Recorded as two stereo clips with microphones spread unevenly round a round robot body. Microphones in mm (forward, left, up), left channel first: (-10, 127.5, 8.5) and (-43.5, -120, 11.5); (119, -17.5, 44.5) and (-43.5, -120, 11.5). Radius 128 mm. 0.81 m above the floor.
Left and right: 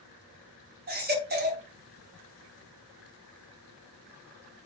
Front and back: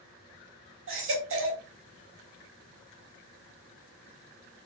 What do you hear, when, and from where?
0.9 s a baby crying: 150° right, 4 m